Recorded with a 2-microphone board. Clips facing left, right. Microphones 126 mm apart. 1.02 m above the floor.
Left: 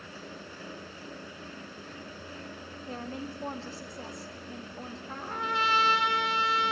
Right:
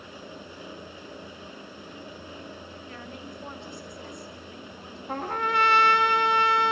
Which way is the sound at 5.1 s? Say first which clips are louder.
Right 7 dB; 85° right.